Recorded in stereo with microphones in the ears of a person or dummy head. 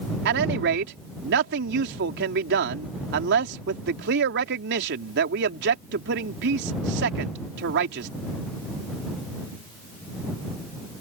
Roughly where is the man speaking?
Right.